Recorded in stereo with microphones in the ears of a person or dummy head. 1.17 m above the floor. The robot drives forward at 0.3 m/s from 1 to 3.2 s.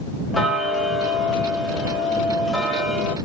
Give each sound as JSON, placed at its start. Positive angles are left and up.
{"t": 0.3, "sound": "ticking", "side_deg": 0, "distance_m": 1.2}